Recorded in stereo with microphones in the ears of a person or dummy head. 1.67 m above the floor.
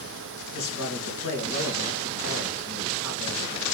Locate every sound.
0.5 s a man speaking: 70° left (ahead or behind), 1.7 m